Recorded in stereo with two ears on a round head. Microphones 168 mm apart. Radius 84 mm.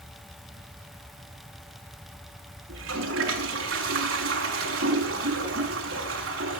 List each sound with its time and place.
2.7 s a toilet flushing: 80° right, 6 m